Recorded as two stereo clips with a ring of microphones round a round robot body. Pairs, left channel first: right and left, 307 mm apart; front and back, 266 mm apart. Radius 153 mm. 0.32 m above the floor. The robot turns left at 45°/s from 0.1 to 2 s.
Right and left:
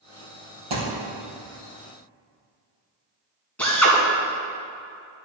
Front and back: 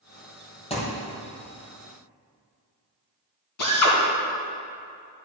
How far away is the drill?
About 2.5 m.